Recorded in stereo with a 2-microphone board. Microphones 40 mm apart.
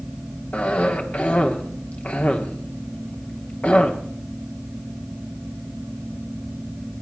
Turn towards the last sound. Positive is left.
turn(degrees=40)  # may be behind; listen again after turning